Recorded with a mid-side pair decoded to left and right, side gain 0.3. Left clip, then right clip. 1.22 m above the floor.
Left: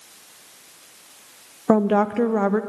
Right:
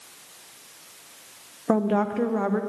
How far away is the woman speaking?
About 0.6 m.